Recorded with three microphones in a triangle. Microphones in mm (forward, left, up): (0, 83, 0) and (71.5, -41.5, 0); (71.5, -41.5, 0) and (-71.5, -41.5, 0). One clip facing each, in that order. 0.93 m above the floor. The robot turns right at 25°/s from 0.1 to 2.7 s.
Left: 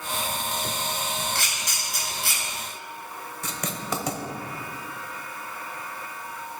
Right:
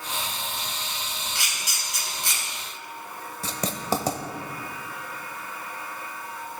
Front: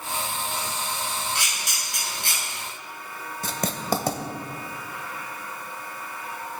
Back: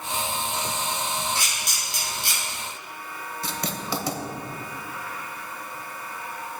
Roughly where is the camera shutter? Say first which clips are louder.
Left 3 dB, back 1 dB; ahead.